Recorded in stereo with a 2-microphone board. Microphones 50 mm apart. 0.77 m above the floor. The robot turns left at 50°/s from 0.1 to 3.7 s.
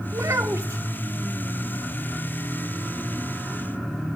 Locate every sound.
0.1 s a child speaking: 70° right, 0.8 m; by 0.8 s 105° right, 0.8 m